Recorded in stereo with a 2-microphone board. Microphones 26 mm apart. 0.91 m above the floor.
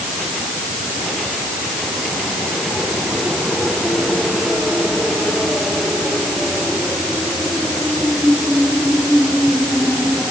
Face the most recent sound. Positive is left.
No sound to turn to.